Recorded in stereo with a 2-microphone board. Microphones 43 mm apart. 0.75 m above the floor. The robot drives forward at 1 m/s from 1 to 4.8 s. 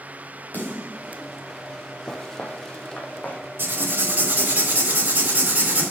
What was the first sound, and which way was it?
A snare drum, 45° left (ahead or behind).